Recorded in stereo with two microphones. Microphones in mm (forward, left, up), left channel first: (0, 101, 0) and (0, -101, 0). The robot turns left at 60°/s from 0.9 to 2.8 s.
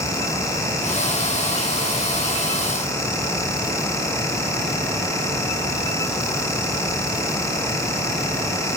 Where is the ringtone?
I don't hear a ringtone.